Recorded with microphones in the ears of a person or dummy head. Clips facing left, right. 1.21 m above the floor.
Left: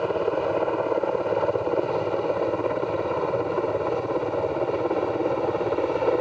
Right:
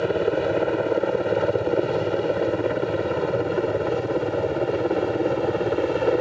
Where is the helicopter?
15° right (ahead or behind); by 6.2 s 10° right (ahead or behind).